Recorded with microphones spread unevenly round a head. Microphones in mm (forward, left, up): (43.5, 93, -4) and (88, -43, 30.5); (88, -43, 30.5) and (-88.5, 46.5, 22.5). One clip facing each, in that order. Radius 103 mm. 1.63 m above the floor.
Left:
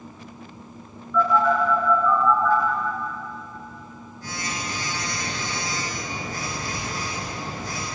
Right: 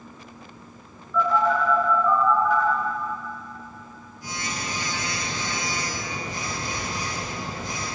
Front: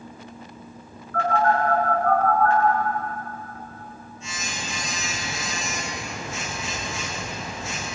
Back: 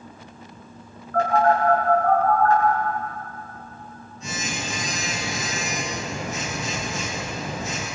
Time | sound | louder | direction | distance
1.1 | a phone buzzing | left 2 dB, back 2 dB | 150° right | 9.5 m